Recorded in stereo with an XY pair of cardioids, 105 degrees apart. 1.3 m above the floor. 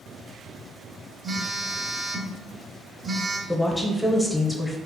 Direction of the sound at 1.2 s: 30° right.